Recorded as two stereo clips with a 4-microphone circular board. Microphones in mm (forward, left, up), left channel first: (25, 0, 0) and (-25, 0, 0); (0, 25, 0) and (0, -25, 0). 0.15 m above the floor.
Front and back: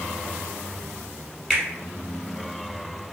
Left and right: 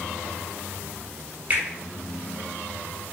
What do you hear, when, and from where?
1.5 s a finger snap: 75° right, 0.9 m